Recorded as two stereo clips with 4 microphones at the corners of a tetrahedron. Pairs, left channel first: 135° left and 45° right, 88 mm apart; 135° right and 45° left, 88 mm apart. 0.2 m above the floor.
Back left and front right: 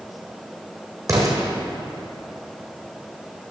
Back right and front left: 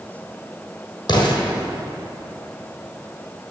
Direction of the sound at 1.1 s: 100° right.